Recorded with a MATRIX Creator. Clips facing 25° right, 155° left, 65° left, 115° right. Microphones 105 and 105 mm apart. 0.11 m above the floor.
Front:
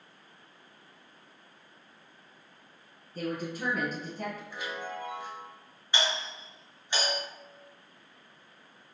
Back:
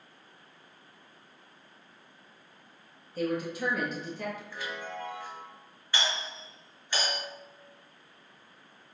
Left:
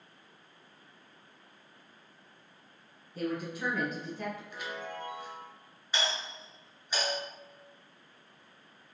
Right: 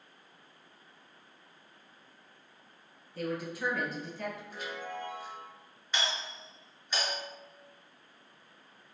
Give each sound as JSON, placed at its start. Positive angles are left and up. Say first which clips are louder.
{"t": 3.1, "sound": "a woman speaking", "louder": "back 3 dB, left 1 dB", "azimuth_deg": -20, "distance_m": 1.6}
{"t": 4.5, "sound": "a chime", "louder": "front 1 dB, even", "azimuth_deg": -90, "distance_m": 1.1}
{"t": 5.9, "sound": "a doorbell", "louder": "front 1 dB, left 1 dB", "azimuth_deg": 0, "distance_m": 1.6}